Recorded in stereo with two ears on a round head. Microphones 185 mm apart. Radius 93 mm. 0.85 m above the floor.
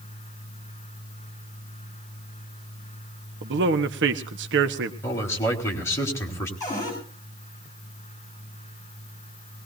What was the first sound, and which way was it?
A man speaking, 60° right (ahead or behind).